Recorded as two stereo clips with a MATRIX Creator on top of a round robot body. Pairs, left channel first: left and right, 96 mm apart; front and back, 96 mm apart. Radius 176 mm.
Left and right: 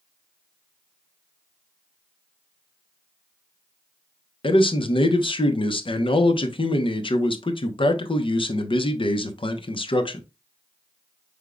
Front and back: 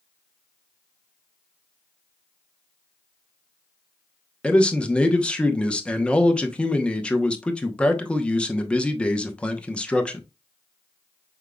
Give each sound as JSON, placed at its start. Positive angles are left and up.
{"t": 4.4, "sound": "a man speaking", "azimuth_deg": 80, "distance_m": 1.0}